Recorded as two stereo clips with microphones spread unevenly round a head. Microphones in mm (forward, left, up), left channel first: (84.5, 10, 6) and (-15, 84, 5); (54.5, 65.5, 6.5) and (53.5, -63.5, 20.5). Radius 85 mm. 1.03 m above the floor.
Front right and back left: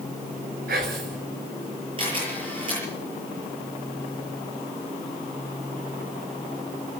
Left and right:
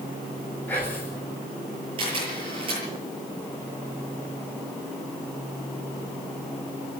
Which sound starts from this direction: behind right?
A camera shutter, at 2.0 s.